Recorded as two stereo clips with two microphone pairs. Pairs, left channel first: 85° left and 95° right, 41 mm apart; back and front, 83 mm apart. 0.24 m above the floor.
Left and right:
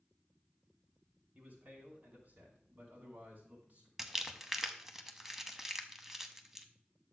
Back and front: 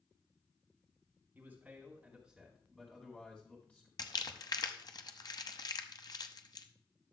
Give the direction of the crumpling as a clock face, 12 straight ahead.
6 o'clock.